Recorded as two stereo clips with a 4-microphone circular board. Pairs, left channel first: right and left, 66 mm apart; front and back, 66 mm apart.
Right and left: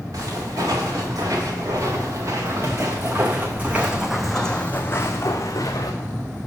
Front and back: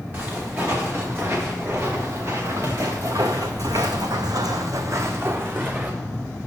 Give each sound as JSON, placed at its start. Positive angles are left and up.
{"t": 0.1, "sound": "footsteps", "azimuth_deg": 120, "distance_m": 2.5}